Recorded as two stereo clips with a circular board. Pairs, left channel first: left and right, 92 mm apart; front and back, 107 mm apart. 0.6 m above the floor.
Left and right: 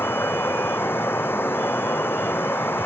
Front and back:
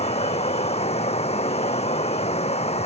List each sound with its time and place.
0.0 s running water: 20° left